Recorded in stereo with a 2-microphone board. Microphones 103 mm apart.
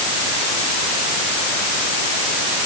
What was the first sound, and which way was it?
Only background noise.